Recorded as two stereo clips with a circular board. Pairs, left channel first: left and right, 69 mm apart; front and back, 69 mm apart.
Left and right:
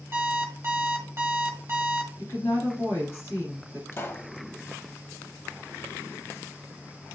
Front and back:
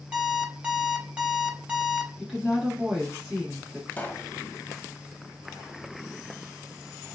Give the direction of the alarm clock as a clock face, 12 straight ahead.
4 o'clock.